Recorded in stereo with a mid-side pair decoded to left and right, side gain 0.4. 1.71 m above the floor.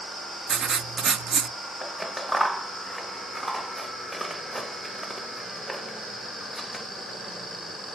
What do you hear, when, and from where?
0.5 s writing: 60° right, 0.6 m
1.8 s scissors: straight ahead, 0.6 m